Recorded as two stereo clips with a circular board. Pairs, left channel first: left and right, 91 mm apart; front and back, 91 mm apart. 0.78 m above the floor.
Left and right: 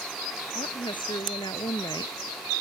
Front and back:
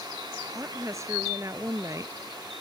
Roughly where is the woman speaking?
Behind left.